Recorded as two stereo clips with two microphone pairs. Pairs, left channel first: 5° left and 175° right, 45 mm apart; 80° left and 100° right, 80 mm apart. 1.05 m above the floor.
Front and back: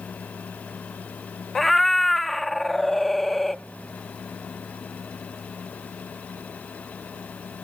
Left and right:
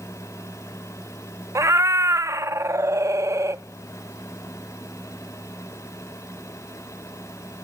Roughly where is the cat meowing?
Right.